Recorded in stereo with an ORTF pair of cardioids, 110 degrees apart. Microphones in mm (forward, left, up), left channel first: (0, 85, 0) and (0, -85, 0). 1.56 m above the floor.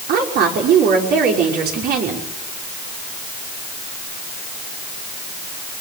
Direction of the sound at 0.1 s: 65° right.